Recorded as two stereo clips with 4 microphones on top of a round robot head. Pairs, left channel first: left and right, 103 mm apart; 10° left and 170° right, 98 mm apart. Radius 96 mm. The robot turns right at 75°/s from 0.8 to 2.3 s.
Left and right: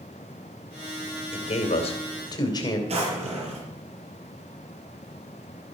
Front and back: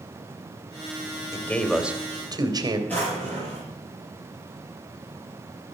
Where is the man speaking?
65° left, 2.5 m; by 2.8 s 140° left, 2.5 m.